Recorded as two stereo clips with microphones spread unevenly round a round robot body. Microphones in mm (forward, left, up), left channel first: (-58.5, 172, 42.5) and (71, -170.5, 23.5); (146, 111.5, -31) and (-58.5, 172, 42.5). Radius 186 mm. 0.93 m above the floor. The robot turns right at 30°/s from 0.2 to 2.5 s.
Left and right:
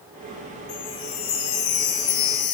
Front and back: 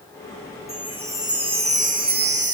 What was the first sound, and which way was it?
A chime, 65° left.